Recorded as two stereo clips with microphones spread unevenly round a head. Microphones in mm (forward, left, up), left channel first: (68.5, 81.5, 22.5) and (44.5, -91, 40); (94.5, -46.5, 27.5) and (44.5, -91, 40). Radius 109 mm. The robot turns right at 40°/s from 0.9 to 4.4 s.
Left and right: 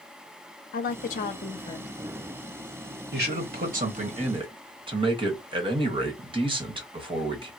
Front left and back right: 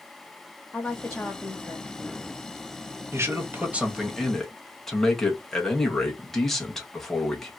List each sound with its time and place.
0.7 s a woman speaking: 115° left, 0.6 m; by 1.9 s 155° left, 0.6 m
3.1 s a man speaking: 90° right, 1.4 m; by 7.5 s 35° right, 1.4 m